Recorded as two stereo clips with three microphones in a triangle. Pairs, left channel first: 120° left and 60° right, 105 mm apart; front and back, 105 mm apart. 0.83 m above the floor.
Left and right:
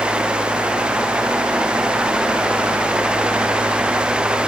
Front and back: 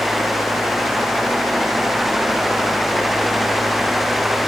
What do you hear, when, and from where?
Only background noise.